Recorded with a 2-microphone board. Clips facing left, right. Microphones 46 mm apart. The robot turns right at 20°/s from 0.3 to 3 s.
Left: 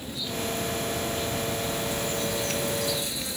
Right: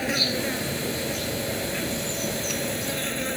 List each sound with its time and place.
0.0 s an insect: 95° right; by 3.4 s 40° right